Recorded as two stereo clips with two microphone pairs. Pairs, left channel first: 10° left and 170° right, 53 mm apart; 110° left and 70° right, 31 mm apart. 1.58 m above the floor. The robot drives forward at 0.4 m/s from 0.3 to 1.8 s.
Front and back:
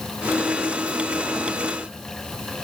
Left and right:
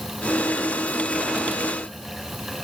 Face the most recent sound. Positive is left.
No sound to turn to.